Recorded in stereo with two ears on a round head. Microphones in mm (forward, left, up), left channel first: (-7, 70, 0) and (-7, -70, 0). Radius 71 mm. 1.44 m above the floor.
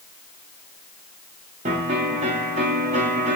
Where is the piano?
40° right (ahead or behind), 0.9 m.